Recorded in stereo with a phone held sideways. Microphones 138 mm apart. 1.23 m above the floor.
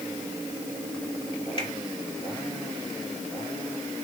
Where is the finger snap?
40° left (ahead or behind), 3.5 m.